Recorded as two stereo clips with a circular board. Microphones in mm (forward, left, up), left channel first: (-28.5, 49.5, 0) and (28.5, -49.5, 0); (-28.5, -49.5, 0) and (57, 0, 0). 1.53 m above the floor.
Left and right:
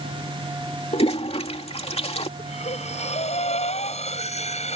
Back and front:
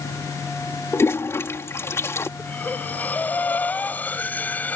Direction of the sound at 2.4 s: 135° left.